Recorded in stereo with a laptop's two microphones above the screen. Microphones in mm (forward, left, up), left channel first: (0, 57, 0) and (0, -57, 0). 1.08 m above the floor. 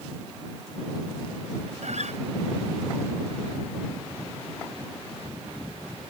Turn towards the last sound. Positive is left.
turn(degrees=-85)